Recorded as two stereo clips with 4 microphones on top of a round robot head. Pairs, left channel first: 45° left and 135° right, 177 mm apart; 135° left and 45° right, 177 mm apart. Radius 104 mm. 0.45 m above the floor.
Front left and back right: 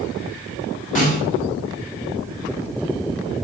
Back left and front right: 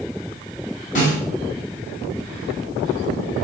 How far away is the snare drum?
About 3 m.